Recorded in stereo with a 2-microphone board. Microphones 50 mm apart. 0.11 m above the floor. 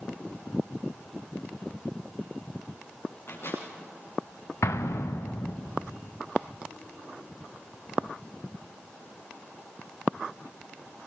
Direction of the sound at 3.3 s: 60° left (ahead or behind).